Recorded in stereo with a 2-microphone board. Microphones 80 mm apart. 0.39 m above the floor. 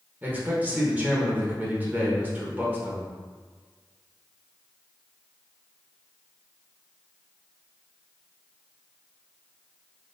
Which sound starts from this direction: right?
A man speaking, at 0.2 s.